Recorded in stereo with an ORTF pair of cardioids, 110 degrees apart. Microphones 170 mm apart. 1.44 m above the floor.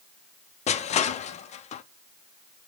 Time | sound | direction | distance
0.7 | crushing | 45° left | 0.5 m